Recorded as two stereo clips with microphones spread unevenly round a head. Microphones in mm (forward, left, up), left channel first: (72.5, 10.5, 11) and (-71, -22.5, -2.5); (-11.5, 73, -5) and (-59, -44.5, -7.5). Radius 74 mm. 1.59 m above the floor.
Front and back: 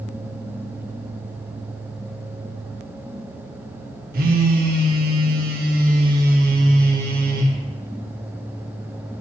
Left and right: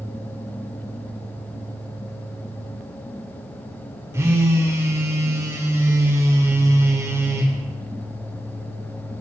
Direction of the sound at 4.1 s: Straight behind.